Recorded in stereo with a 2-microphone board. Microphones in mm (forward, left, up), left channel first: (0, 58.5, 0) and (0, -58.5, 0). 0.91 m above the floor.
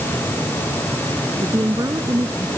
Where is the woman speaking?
30° right (ahead or behind).